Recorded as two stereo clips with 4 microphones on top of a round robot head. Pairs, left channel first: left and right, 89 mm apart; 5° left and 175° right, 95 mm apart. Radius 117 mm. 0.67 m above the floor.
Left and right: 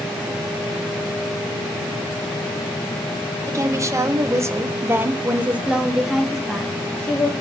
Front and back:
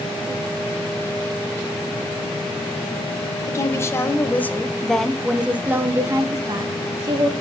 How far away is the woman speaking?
About 1.5 m.